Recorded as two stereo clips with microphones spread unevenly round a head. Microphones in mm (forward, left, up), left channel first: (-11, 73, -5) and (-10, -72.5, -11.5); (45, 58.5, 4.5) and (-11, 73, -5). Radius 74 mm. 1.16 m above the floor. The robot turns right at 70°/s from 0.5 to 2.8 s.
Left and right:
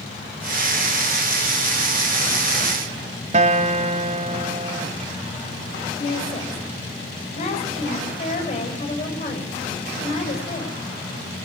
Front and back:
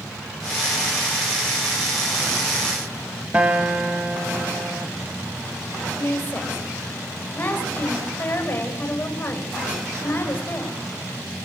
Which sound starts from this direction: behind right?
A guitar, at 3.3 s.